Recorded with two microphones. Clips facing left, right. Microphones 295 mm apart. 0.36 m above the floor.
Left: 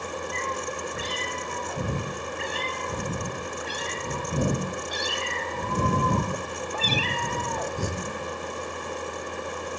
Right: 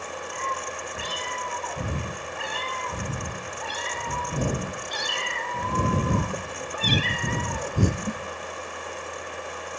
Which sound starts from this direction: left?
A cat meowing, at 0.3 s.